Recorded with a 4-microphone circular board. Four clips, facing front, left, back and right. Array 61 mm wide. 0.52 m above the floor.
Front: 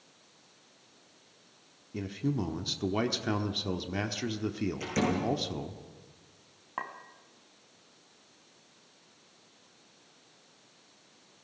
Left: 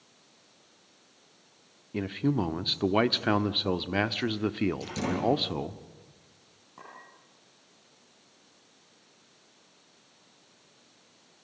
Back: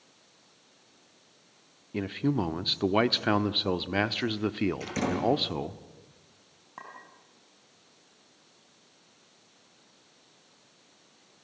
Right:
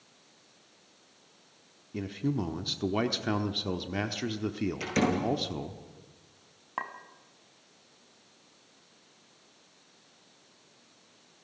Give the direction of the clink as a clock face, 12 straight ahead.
2 o'clock.